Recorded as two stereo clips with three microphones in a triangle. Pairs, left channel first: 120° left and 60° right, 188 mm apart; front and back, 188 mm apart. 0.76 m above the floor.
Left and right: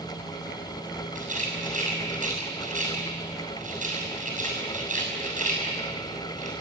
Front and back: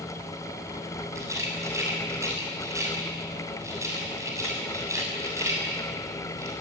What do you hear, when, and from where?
1.1 s a rattle: 105° right, 7 m